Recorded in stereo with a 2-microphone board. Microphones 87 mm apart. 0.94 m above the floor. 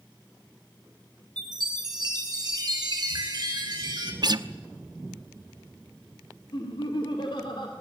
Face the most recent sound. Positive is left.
turn(degrees=65)  # may be behind; listen again after turning